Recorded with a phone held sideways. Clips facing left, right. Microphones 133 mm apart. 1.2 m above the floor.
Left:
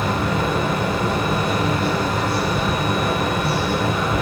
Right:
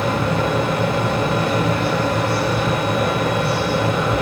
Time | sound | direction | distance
0.0 | a fan | 80° right | 3.5 m